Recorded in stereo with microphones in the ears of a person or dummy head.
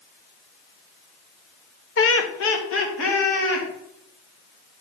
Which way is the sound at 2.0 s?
65° left (ahead or behind).